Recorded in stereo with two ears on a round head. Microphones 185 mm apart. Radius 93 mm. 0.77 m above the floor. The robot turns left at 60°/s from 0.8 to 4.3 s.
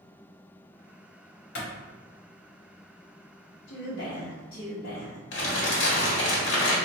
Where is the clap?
60° left (ahead or behind), 1.1 m.